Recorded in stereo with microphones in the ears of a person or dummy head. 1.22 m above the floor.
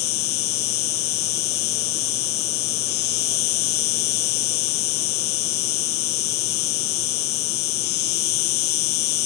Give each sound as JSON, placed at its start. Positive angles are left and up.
{"t": 0.0, "sound": "an insect", "side_deg": 55}